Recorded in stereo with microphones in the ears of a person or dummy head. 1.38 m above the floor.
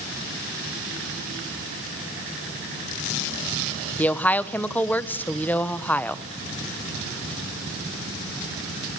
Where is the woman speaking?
10° left (ahead or behind), 0.8 m.